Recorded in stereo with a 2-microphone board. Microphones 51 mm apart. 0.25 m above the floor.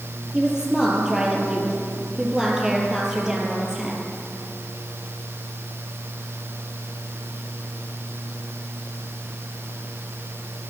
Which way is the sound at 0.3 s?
10° right (ahead or behind).